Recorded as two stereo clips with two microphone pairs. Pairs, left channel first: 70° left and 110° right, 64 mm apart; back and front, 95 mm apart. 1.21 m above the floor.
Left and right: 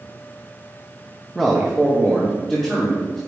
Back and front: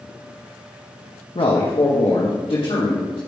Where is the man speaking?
160° left, 0.9 m; by 3.2 s 155° left, 1.9 m.